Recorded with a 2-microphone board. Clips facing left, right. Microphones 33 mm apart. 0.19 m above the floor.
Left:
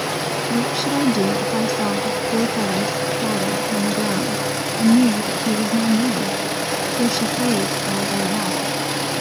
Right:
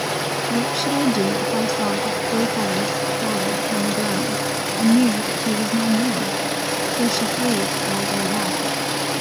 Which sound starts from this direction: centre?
A woman speaking, at 0.5 s.